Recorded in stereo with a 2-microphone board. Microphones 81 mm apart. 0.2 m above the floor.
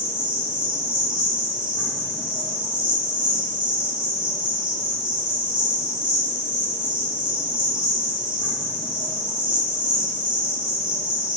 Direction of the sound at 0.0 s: 75° right (ahead or behind).